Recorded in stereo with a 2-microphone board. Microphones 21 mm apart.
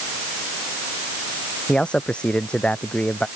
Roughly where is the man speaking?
Left.